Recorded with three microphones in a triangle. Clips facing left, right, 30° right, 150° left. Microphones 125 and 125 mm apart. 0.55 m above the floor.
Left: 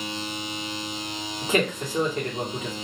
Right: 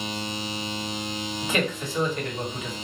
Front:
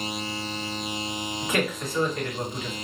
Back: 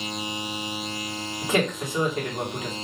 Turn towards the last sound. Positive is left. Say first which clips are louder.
# left 3 dB, back 3 dB
turn(degrees=100)